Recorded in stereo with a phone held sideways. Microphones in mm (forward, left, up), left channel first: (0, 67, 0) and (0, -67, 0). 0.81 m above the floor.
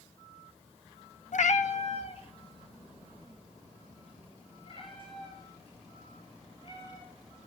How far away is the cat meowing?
About 0.5 m.